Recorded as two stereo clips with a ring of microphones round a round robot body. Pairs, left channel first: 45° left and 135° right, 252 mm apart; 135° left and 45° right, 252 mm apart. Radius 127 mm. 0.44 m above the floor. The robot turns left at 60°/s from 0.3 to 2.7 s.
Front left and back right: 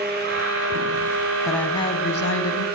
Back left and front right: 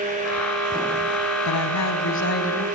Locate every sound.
1.4 s a woman speaking: 140° left, 4 m; by 2.6 s 65° left, 4 m